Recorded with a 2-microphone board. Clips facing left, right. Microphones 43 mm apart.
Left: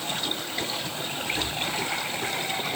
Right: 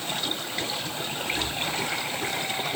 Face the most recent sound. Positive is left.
No sound to turn to.